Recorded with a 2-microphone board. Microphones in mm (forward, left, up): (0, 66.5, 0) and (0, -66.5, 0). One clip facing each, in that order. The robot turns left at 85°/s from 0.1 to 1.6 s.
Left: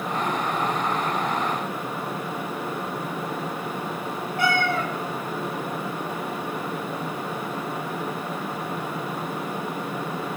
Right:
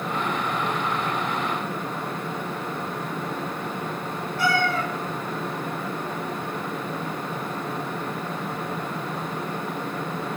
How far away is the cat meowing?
About 0.7 m.